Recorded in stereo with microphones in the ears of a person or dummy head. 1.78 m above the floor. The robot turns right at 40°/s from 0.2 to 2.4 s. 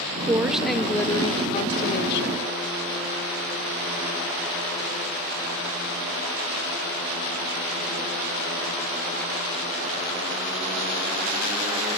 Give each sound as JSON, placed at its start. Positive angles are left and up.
{"t": 0.2, "sound": "a woman speaking", "azimuth_deg": -15, "distance_m": 0.6}